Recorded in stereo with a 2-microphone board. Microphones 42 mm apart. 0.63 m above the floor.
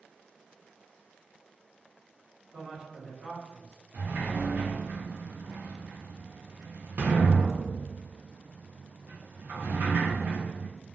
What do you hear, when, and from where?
2.5 s a man speaking: 30° right (ahead or behind), 1.4 m
3.9 s a sliding door: 50° right (ahead or behind), 0.7 m